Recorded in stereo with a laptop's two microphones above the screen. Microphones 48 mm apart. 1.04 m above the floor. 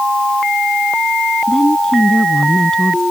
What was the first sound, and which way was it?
A woman speaking, 15° left (ahead or behind).